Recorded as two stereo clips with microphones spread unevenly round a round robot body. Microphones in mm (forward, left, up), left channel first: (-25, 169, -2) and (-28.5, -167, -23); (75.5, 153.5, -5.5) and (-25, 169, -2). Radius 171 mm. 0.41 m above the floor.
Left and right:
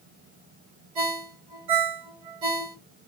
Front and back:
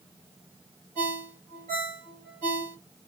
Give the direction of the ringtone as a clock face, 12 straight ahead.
4 o'clock.